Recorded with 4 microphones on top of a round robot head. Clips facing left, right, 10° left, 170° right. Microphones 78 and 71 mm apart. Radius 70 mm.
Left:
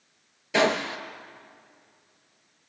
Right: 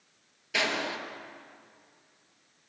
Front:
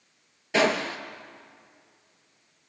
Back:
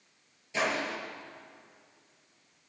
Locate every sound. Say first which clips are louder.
0.5 s a gunshot: left 7 dB, front 7 dB; 35° left, 2.5 m